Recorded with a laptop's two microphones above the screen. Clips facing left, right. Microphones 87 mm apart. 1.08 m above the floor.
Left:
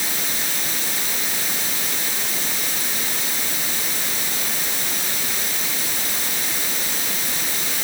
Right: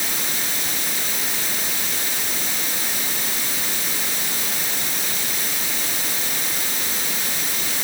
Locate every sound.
Only background noise.